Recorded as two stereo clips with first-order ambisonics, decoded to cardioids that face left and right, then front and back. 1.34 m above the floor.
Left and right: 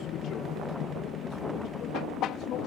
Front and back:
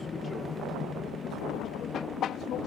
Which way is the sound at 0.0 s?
65° left.